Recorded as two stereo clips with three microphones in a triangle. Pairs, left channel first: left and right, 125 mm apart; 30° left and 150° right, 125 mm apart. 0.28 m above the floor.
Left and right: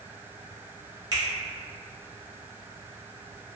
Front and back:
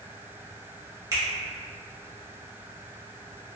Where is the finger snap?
105° right, 1.0 m.